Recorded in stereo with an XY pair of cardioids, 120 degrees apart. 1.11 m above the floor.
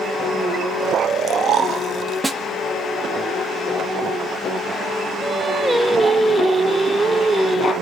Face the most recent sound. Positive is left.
turn(degrees=-15)